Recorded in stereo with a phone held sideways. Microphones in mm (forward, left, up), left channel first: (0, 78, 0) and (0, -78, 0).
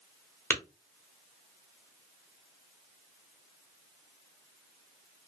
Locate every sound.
0.5 s tapping: 15° left (ahead or behind), 1.0 m